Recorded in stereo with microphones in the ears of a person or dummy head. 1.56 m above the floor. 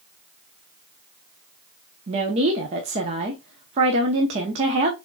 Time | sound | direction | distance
2.1 | a woman speaking | 40° right (ahead or behind) | 0.7 m